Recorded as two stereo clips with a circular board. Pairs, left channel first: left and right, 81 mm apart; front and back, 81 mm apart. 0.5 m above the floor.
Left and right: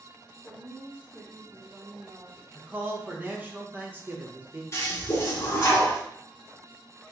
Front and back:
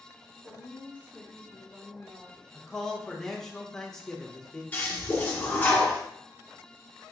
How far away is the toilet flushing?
About 0.9 m.